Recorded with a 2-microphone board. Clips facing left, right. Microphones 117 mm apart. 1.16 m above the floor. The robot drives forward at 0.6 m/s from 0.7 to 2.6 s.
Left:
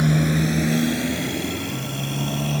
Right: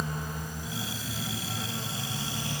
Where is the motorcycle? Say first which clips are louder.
Left 15 dB; 85° left; by 2.6 s 55° left (ahead or behind).